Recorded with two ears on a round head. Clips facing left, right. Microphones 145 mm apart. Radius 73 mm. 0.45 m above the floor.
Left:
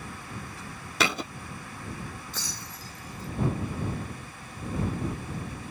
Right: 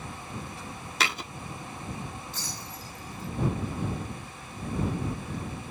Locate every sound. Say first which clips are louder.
1.0 s a thud: left 4 dB; 85° left
2.3 s breaking glass: right 1 dB; 70° left (ahead or behind)